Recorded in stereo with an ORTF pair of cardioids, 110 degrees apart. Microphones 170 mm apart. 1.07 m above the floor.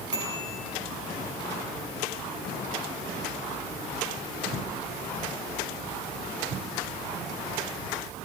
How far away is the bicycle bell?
About 9.5 m.